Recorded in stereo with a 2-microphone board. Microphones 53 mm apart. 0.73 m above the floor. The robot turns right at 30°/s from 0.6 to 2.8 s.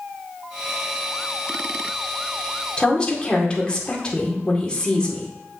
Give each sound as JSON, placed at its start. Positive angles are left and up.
{"t": 2.8, "sound": "a woman speaking", "side_deg": 20, "distance_m": 2.0}